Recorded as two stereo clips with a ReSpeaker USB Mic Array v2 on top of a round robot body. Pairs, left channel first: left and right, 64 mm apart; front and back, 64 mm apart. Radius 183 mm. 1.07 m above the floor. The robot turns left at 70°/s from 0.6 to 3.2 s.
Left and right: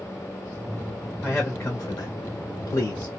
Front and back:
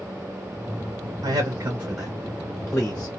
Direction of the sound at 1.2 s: Straight behind.